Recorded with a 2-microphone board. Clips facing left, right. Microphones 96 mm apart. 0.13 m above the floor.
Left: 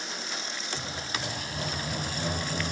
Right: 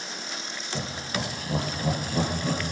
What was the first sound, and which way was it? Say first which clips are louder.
Laughter: right 6 dB; 65° right (ahead or behind).